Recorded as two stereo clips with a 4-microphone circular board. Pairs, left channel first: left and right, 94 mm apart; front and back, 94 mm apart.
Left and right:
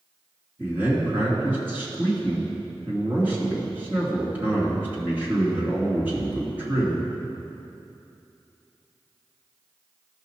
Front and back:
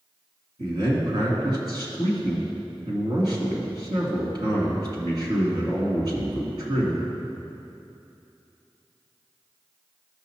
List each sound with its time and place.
0.6 s a man speaking: 155° right, 2.5 m